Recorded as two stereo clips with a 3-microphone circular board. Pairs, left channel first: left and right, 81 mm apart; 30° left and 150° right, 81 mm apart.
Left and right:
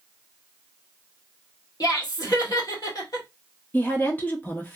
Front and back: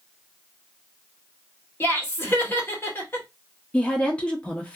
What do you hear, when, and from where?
1.8 s laughter: 85° left, 1.8 m
3.7 s a woman speaking: 75° left, 0.7 m